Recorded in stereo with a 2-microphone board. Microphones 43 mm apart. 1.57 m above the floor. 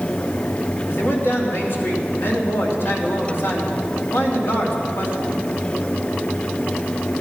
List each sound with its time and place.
0.9 s a man speaking: 65° left (ahead or behind), 3 m